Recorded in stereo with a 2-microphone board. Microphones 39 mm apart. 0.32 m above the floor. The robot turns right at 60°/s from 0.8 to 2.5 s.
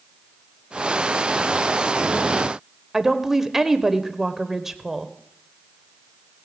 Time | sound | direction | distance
2.9 | a woman speaking | 10° right (ahead or behind) | 0.9 m